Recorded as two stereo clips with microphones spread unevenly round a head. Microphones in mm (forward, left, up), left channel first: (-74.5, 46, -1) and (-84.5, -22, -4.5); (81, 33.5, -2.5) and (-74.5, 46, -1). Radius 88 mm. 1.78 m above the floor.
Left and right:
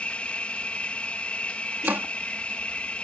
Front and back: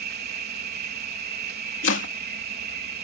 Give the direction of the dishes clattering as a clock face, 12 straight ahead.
No dishes clattering in this recording.